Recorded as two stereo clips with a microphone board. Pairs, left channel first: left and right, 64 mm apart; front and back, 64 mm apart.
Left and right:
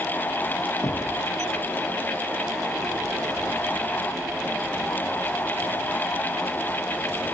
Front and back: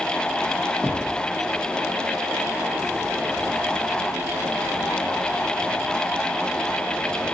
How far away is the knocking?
About 2.5 m.